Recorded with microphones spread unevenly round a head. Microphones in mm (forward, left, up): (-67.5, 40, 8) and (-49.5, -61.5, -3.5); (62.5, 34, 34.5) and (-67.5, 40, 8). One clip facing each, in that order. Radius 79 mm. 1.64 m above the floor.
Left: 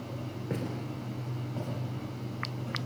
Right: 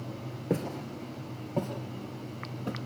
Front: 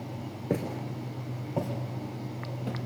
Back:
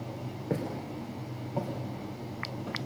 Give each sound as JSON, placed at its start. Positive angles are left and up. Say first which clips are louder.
{"t": 0.5, "sound": "footsteps", "louder": "right 5 dB, front 2 dB", "azimuth_deg": -30, "distance_m": 1.8}